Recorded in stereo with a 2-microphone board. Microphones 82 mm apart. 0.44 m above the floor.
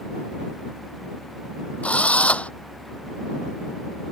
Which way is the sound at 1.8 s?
15° left (ahead or behind).